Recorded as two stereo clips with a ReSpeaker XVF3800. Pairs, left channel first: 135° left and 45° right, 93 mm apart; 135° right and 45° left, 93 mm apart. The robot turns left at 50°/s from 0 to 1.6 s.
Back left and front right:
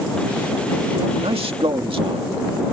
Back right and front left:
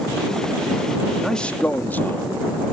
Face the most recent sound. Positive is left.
turn(degrees=-65)